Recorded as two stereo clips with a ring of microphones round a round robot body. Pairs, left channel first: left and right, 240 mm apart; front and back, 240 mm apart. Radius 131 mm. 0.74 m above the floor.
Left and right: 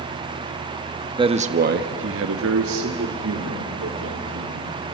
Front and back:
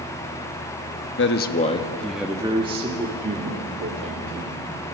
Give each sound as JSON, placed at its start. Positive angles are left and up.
{"t": 1.2, "sound": "a man speaking", "azimuth_deg": -25, "distance_m": 1.1}